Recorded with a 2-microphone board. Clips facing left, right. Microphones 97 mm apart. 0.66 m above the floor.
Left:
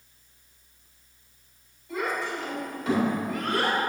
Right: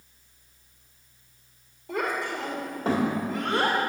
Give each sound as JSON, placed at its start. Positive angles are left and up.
{"t": 1.9, "sound": "a child speaking", "side_deg": -65, "distance_m": 1.8}